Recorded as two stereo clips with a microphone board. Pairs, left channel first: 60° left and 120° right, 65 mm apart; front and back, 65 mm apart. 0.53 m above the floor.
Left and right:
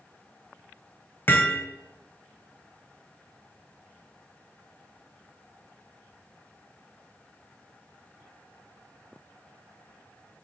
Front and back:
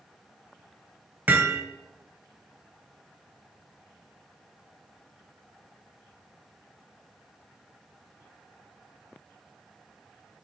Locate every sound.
1.3 s hammering: 115° left, 2 m